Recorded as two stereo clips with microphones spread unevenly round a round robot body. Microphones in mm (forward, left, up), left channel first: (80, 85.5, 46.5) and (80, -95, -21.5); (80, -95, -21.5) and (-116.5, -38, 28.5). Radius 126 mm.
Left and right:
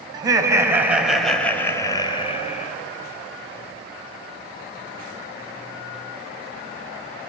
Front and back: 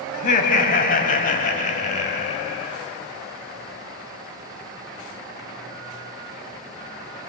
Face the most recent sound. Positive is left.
turn(degrees=30)